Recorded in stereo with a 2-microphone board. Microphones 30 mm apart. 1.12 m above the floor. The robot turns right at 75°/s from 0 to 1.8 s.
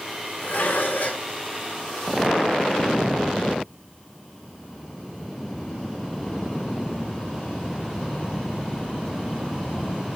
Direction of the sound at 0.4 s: 70° left.